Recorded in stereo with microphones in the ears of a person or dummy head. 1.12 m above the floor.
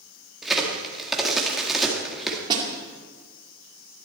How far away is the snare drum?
About 2.5 m.